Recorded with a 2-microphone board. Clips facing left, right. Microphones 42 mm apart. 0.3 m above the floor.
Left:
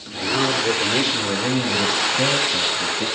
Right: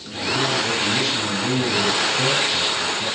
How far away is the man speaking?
About 3.5 m.